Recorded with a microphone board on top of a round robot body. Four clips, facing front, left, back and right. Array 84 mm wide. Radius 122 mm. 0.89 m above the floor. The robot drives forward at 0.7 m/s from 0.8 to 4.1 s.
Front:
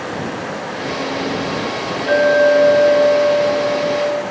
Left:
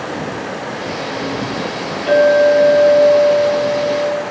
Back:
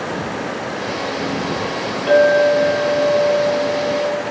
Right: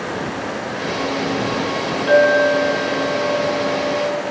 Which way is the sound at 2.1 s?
130° left.